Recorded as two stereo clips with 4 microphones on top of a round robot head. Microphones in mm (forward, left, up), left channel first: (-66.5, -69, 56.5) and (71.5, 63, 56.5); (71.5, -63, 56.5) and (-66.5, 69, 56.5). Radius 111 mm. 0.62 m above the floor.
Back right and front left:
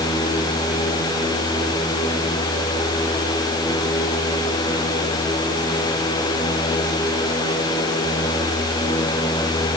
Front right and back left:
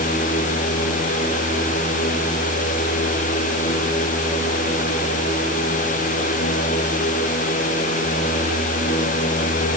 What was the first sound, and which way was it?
Only background noise.